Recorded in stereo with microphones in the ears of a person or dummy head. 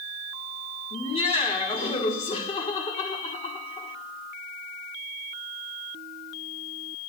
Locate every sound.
0.9 s laughter: 20° left (ahead or behind), 1.5 m